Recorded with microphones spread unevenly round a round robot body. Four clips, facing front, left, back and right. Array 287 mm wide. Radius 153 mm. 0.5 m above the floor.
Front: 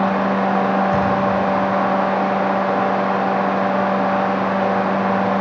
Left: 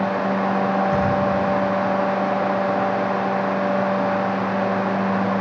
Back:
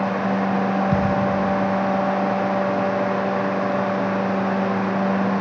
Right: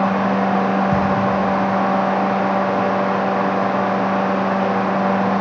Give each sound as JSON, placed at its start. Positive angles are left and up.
{"t": 0.9, "sound": "a thud", "azimuth_deg": -145, "distance_m": 6.5}